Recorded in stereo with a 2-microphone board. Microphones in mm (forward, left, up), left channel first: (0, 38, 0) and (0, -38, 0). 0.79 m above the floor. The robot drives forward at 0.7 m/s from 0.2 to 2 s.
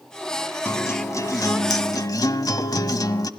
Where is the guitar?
35° left (ahead or behind), 1.3 m; by 3.3 s 55° left (ahead or behind), 0.9 m.